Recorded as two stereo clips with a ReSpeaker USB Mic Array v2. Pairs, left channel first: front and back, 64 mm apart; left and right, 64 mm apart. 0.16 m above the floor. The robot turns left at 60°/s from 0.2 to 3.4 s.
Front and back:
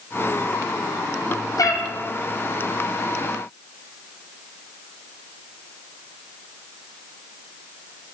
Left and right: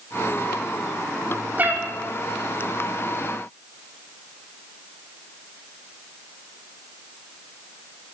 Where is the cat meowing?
25° right, 1.0 m; by 1.8 s 40° right, 1.0 m.